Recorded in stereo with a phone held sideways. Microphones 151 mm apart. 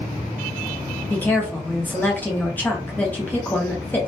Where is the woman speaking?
10° left (ahead or behind), 0.9 m.